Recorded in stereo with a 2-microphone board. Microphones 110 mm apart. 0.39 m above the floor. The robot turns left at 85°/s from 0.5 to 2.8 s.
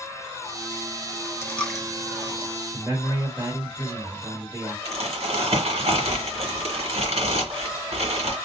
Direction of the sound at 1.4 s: 25° left (ahead or behind).